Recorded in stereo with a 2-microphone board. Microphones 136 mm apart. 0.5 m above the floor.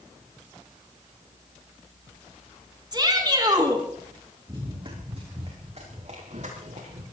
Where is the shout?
30° right (ahead or behind), 4 m.